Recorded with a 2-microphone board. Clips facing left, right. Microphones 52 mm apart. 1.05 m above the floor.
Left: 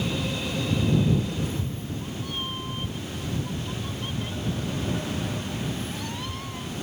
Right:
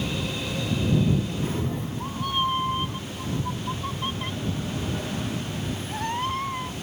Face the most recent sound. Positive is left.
turn(degrees=-45)  # may be behind; listen again after turning